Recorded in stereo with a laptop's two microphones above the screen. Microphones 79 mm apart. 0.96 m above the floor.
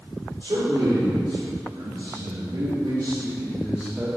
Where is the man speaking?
70° right (ahead or behind), 3 m; by 4.1 s 10° right (ahead or behind), 1.2 m.